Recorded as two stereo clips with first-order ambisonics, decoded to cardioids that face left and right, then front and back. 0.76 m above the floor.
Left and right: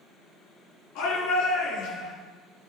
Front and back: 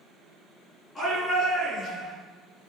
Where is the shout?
75° left, 8.5 m.